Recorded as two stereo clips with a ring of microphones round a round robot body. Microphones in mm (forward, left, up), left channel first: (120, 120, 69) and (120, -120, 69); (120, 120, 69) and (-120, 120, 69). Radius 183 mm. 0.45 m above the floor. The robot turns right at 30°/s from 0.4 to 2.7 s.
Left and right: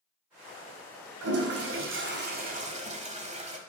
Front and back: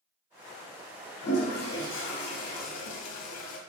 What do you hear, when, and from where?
1.2 s a toilet flushing: 70° right, 1.3 m; by 3.6 s 25° right, 1.3 m